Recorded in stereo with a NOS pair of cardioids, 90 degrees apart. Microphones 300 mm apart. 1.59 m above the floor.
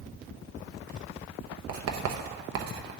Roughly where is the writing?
Ahead right.